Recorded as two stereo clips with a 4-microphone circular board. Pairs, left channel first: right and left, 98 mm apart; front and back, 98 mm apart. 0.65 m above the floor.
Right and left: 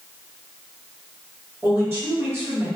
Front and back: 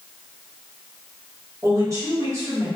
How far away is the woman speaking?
About 1.3 m.